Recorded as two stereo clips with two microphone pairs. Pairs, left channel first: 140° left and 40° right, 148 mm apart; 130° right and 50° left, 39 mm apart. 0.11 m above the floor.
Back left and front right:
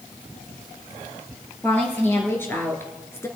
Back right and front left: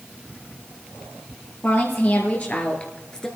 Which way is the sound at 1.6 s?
145° right.